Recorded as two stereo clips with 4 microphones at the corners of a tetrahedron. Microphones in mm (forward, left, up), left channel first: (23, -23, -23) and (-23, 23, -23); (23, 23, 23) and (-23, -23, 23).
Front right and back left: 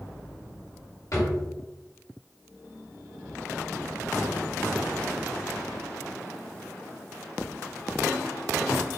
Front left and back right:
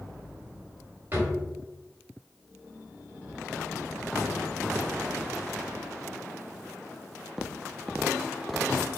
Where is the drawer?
80° right, 1.6 m.